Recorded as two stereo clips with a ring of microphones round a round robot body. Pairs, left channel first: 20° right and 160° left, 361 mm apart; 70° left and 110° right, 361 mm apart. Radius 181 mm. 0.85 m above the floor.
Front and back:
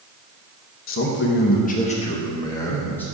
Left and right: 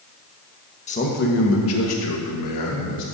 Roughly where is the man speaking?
Ahead.